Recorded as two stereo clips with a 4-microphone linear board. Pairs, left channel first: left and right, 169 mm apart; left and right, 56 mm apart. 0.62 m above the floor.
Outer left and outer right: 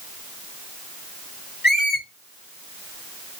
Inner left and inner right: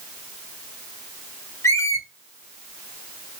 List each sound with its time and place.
1.6 s a squeak: 75° left (ahead or behind), 3 m